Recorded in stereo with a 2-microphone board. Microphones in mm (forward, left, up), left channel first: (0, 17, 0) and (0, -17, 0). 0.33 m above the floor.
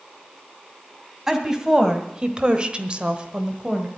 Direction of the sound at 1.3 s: 15° right (ahead or behind).